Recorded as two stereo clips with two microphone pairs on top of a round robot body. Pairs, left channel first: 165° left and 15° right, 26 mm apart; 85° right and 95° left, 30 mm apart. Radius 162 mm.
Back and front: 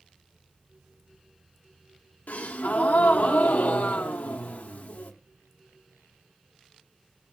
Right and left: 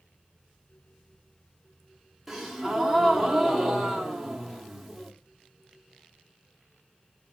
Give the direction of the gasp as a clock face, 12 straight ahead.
6 o'clock.